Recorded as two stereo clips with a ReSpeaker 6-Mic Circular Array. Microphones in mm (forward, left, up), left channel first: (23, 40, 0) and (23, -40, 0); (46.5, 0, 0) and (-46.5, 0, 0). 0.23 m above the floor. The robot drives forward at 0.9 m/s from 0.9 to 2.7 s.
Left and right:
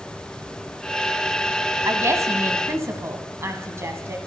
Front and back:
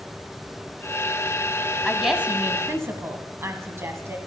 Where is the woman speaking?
85° right, 1.3 m; by 4.2 s 130° right, 1.5 m.